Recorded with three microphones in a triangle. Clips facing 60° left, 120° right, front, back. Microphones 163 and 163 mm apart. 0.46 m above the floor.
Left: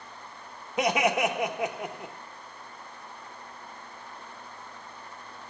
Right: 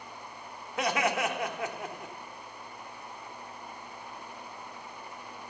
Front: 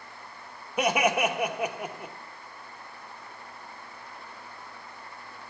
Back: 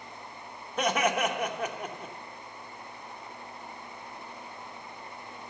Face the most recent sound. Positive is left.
turn(degrees=60)